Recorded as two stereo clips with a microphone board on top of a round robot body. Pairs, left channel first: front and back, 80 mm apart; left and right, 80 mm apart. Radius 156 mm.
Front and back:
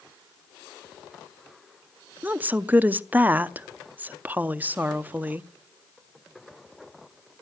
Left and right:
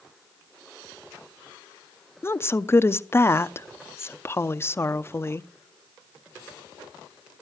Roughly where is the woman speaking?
Behind left.